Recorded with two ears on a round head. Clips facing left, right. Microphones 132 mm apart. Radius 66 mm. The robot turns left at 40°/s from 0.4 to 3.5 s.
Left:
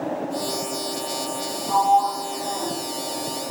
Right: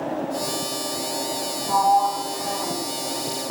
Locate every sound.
1.7 s a sliding door: 45° right, 1.0 m; by 2.8 s 90° right, 1.0 m